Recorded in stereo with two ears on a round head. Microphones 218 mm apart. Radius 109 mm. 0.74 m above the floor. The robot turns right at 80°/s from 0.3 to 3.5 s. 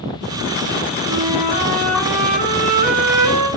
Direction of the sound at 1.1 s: 110° left.